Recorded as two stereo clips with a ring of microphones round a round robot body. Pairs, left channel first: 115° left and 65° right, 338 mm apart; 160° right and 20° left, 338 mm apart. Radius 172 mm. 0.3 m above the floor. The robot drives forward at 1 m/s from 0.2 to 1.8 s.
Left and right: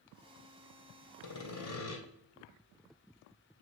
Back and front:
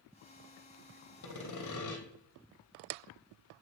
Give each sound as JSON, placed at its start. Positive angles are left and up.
{"t": 1.2, "sound": "sawing", "azimuth_deg": 160, "distance_m": 2.5}